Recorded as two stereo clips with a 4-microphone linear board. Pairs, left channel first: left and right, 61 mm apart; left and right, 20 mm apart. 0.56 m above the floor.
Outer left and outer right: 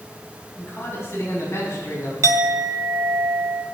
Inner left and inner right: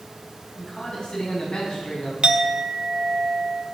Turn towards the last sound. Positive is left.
turn(degrees=-55)  # may be behind; listen again after turning